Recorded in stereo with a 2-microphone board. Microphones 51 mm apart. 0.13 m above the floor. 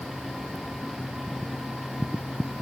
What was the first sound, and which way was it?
Only background noise.